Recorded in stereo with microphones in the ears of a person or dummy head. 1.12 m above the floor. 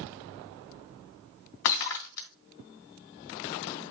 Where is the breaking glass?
60° left (ahead or behind), 1.5 m.